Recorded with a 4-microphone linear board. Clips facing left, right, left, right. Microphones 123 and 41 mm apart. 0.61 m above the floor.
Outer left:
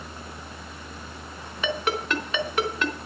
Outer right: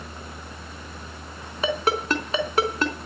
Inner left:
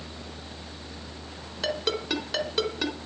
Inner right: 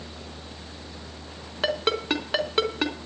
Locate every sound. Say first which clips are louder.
1.6 s a ringtone: outer right 3 dB, inner right 4 dB; 35° right (ahead or behind), 3.5 m